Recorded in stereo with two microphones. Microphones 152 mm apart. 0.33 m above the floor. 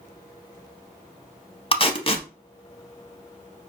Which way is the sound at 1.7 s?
35° left (ahead or behind).